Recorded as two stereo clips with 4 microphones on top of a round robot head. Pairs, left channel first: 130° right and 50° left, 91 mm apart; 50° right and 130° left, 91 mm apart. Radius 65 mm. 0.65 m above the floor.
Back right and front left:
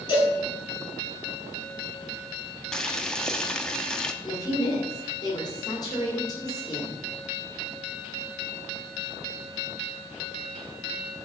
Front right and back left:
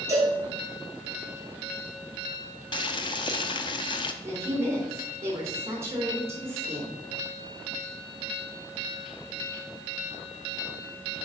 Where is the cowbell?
170° right, 5 m.